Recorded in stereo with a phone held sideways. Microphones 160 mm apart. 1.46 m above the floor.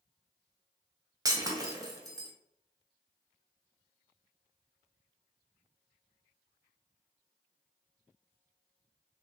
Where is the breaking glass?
20° right (ahead or behind), 0.5 m.